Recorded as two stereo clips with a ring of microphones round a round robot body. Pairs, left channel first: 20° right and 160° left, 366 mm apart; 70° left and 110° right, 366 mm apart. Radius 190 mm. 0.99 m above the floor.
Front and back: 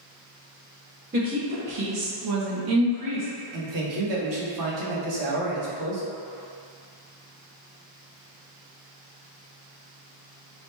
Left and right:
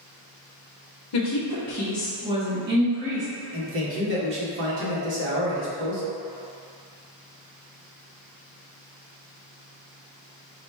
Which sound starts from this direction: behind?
A man speaking, at 3.5 s.